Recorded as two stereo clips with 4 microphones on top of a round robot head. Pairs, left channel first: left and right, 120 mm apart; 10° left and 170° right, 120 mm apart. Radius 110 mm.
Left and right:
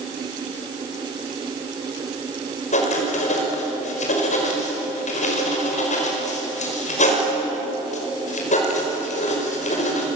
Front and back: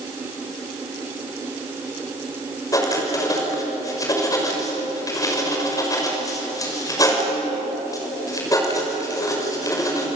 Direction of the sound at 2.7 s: 70° left.